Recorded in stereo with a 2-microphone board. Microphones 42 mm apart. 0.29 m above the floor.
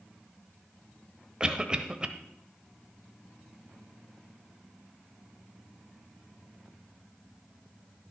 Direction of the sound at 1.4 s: 20° right (ahead or behind).